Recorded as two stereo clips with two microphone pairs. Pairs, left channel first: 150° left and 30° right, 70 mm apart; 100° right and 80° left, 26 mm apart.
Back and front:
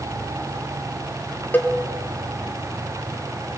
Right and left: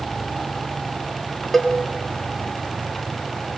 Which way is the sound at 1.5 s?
Straight behind.